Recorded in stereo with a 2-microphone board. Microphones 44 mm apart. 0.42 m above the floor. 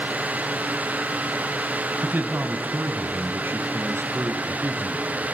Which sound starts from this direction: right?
A man speaking, at 2.0 s.